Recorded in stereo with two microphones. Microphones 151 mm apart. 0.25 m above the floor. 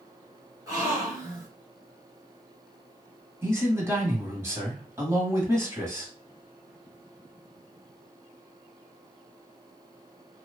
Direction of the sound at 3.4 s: 20° right (ahead or behind).